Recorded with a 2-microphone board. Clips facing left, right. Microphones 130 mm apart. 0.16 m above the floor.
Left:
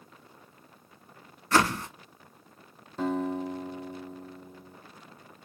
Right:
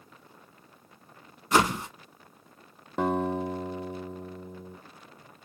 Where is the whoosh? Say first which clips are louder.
Right 1 dB; 15° right (ahead or behind), 0.6 m.